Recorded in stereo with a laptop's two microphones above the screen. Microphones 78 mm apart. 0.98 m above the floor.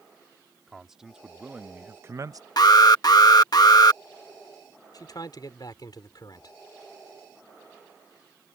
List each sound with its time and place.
0.7 s a man speaking: 5° right (ahead or behind); by 2.5 s 55° right (ahead or behind)
2.6 s an alarm: 60° left (ahead or behind)
4.9 s a man speaking: 60° left (ahead or behind)